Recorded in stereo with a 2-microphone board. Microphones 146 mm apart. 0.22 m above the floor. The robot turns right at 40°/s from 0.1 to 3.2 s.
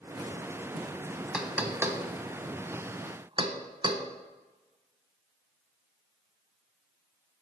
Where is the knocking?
5° right (ahead or behind), 1.1 m; by 4.0 s 35° right (ahead or behind), 1.1 m.